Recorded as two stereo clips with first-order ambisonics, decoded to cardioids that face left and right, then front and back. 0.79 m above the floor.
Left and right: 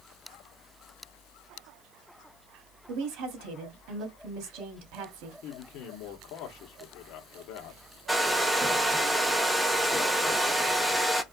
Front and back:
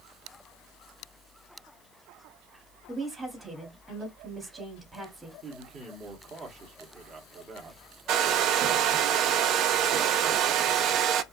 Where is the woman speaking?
100° right, 1.4 m.